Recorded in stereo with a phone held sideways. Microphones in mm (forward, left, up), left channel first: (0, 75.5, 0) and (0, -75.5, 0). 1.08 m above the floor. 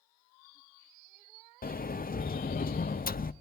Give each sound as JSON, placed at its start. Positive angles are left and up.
{"t": 1.6, "sound": "a sliding door", "side_deg": 70, "distance_m": 0.6}